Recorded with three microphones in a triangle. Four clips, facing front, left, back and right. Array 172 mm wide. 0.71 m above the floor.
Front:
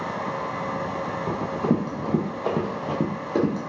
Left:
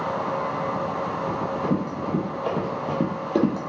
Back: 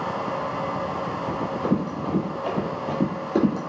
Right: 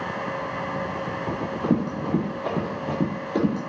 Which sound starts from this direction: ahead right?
Running footsteps, at 1.3 s.